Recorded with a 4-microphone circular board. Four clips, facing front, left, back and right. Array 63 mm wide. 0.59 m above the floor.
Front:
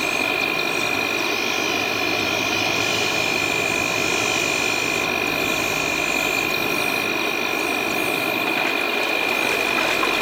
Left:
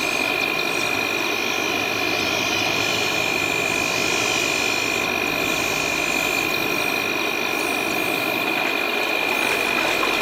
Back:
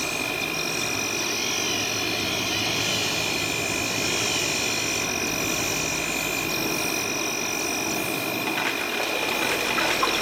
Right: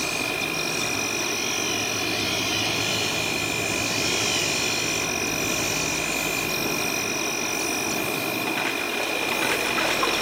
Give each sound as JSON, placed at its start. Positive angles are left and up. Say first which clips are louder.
{"t": 0.0, "sound": "an insect", "louder": "left 5 dB, front 6 dB", "azimuth_deg": 35}